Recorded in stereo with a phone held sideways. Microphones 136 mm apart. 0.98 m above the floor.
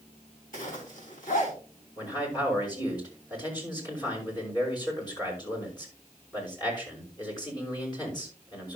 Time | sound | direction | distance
0.5 | a zipper | 80° left | 3.5 m
2.0 | a man speaking | 30° left (ahead or behind) | 4.5 m